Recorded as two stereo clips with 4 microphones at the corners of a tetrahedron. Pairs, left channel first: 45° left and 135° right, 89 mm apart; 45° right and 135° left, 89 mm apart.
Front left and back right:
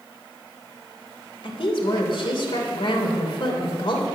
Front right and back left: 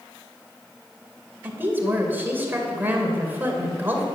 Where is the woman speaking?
65° left, 2.5 m.